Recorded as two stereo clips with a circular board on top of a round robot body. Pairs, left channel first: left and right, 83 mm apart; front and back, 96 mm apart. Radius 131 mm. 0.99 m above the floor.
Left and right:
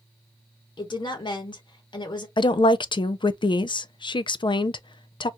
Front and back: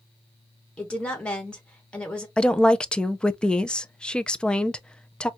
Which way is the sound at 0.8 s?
80° left.